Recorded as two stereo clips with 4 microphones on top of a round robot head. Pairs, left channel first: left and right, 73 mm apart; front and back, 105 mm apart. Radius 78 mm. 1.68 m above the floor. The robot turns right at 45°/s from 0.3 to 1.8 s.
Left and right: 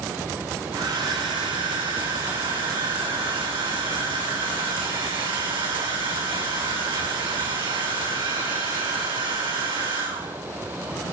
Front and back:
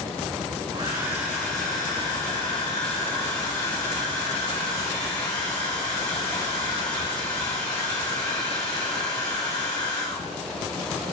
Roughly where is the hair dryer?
Behind right.